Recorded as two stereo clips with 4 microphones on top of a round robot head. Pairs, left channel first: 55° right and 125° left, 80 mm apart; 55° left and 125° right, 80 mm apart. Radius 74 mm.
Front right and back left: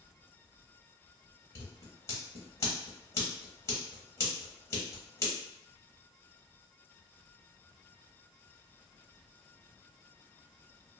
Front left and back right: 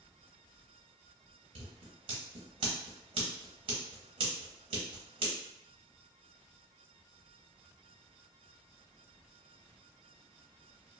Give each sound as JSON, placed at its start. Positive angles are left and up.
{"t": 1.6, "sound": "scissors", "azimuth_deg": -110, "distance_m": 0.9}